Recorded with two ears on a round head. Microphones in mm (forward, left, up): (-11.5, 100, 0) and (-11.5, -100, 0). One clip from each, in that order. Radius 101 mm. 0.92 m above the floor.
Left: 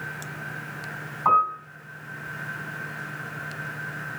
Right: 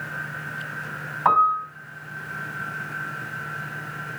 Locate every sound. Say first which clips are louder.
1.2 s a piano: right 2 dB; 70° right (ahead or behind), 3 m